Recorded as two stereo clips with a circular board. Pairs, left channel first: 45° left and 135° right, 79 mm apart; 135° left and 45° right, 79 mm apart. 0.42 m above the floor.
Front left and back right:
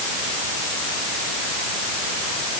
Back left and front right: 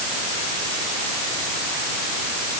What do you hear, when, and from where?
Only background noise.